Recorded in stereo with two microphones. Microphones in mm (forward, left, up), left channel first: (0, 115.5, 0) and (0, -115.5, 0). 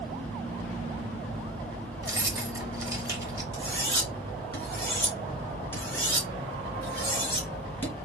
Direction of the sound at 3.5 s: 10° left (ahead or behind).